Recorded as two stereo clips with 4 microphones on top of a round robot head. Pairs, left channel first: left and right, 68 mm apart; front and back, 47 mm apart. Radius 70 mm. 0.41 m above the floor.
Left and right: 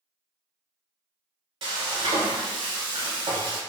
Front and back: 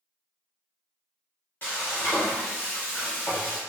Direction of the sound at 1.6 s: 65° right.